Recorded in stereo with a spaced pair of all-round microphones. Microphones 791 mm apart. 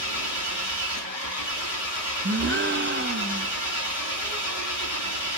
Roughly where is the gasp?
Centre.